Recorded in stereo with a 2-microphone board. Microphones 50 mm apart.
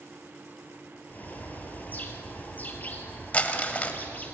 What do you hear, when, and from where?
1.1 s a bird: 30° left (ahead or behind), 2.5 m
3.3 s crumpling: 25° left (ahead or behind), 1.5 m